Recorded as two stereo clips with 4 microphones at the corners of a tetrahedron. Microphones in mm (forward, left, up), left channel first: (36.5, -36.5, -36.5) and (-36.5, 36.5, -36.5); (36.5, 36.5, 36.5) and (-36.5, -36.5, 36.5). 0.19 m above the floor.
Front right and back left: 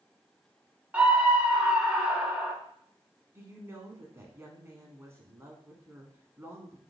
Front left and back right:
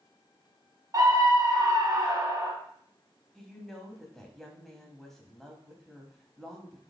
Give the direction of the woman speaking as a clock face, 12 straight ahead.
8 o'clock.